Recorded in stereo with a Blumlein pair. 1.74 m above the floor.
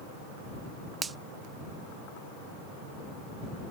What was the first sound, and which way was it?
A finger snap, 15° right.